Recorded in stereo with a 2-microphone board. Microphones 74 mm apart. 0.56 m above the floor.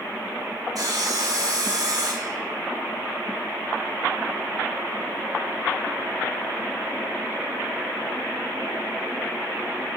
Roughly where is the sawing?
Right.